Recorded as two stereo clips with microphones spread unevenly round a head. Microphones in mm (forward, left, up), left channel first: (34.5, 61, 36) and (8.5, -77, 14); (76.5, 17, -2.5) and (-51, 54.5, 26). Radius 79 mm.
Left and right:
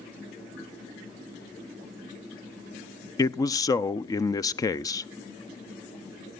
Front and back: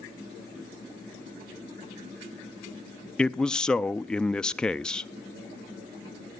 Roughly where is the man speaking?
Ahead left.